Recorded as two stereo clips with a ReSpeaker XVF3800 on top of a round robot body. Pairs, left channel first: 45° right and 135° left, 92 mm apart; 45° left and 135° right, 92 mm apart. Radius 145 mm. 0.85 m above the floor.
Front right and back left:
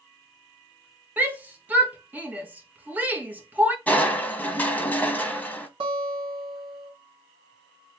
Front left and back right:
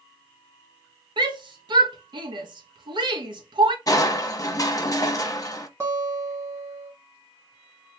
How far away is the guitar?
About 1.4 m.